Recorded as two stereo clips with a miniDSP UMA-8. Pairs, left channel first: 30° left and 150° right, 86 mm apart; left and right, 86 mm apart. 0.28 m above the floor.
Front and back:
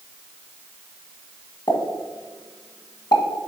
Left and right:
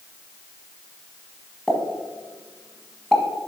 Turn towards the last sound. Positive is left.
turn(degrees=5)